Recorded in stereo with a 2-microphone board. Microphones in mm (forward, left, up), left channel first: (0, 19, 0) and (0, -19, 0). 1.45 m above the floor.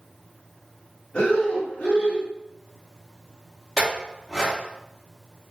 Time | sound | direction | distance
1.1 | breathing | 50° left (ahead or behind) | 1.8 m
3.8 | a clink | 10° right (ahead or behind) | 1.4 m